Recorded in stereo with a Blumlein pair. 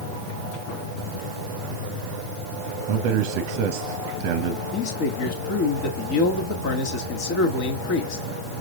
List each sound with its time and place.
2.9 s a man speaking: 45° right, 0.8 m
4.7 s a man speaking: 45° left, 2.0 m